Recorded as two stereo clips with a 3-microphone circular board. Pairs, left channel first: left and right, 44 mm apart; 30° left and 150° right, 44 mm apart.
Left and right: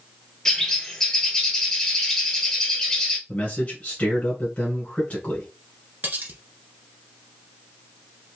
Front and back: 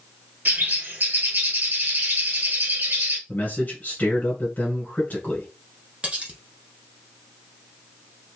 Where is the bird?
165° left, 1.5 m.